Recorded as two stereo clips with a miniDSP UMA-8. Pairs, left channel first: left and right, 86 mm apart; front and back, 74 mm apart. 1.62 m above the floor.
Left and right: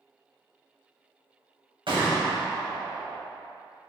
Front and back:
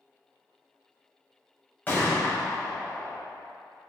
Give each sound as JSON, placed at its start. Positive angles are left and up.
{"t": 1.9, "sound": "a gunshot", "azimuth_deg": -65, "distance_m": 2.5}